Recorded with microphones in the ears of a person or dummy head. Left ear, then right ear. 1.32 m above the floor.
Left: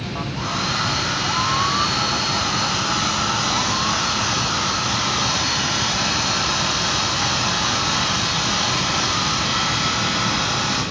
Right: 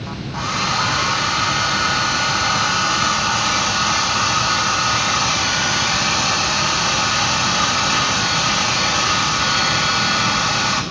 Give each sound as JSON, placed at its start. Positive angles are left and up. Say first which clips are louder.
{"t": 0.3, "sound": "a hair dryer", "louder": "right 4 dB", "side_deg": -60, "distance_m": 3.0}